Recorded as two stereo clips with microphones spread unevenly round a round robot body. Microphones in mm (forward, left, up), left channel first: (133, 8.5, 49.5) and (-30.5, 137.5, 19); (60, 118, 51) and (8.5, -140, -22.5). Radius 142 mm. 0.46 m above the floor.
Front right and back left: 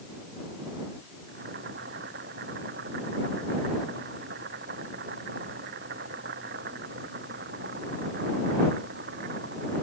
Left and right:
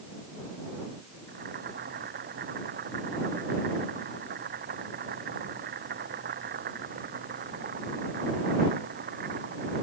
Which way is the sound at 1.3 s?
160° right.